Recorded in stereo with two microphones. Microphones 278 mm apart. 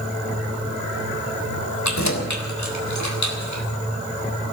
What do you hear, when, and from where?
1.8 s keys jangling: 75° left (ahead or behind), 3 m; by 3.6 s 85° left, 3.5 m